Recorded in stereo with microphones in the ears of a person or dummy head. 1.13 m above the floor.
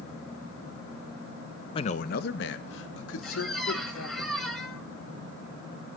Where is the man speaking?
30° left (ahead or behind), 0.8 m; by 4.2 s 80° left, 3.5 m.